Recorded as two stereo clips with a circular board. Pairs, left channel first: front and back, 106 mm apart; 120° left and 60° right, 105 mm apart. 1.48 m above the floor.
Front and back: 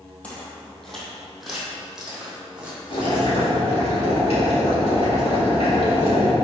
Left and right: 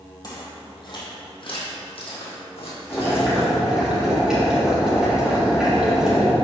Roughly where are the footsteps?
Left.